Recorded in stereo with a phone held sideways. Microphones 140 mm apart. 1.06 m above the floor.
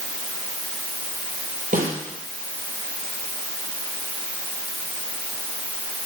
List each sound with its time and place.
1.7 s a snare drum: 80° right, 5.5 m